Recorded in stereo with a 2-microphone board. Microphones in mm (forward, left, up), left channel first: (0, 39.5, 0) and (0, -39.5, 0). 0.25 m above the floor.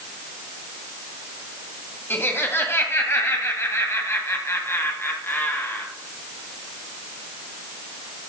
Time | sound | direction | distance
2.1 | laughter | 30° left (ahead or behind) | 1.7 m